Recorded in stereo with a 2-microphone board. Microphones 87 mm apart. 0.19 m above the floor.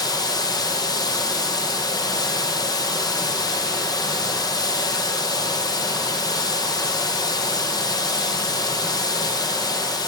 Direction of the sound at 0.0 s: 45° left (ahead or behind).